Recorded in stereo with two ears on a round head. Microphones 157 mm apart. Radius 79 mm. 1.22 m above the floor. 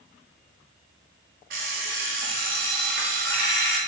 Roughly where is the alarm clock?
Right.